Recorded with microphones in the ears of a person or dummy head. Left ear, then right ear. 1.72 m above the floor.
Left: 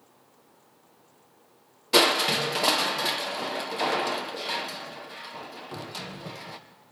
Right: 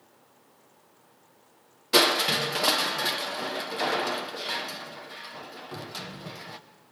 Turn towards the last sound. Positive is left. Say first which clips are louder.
# left 1 dB
turn(degrees=-5)  # may be behind; listen again after turning